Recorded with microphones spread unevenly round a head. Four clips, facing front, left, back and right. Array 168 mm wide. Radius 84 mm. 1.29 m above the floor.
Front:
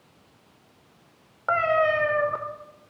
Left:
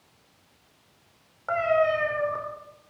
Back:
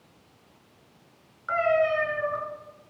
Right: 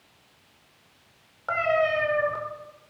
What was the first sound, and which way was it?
A cat meowing, straight ahead.